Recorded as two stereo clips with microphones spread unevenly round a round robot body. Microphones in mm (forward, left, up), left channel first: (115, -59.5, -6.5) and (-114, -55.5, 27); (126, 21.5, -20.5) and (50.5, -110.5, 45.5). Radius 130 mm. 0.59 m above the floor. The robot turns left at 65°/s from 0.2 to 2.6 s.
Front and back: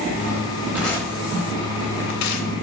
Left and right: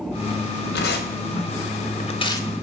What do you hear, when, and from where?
0.7 s tearing paper: 95° left, 1.0 m; by 2.5 s 20° right, 1.0 m